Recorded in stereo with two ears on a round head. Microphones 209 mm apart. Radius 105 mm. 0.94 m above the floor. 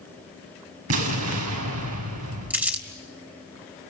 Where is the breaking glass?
No breaking glass in this recording.